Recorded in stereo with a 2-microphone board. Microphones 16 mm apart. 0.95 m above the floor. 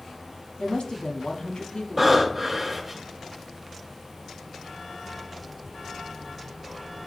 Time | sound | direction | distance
0.6 | a woman speaking | 75° left (ahead or behind) | 1.7 m
2.0 | breathing | 10° right (ahead or behind) | 3 m